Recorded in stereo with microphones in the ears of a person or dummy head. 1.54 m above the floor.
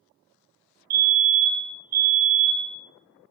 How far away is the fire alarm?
About 1.6 m.